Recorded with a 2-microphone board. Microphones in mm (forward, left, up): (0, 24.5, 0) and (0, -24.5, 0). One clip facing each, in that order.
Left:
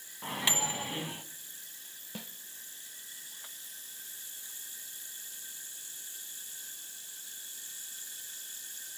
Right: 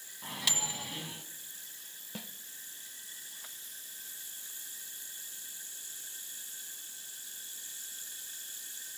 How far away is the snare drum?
About 0.9 m.